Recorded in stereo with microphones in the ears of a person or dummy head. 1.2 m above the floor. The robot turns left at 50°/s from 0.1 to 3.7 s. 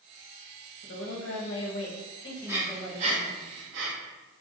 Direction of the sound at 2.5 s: 10° right (ahead or behind).